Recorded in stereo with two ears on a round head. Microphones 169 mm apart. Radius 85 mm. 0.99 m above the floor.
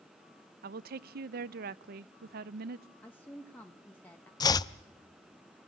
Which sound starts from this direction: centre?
A woman speaking, at 3.0 s.